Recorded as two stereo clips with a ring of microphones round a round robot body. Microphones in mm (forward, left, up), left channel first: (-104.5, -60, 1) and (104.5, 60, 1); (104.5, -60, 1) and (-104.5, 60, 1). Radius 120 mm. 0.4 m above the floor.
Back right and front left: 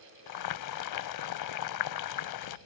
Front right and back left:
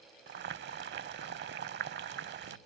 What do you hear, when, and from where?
0.3 s boiling: 160° right